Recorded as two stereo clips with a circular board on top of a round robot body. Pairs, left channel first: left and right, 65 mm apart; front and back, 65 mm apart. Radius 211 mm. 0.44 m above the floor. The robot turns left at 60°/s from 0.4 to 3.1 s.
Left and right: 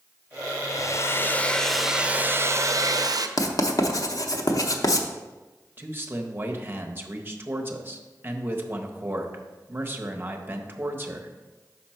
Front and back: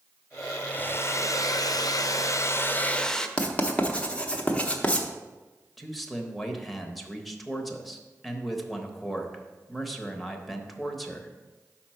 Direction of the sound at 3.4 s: 70° left.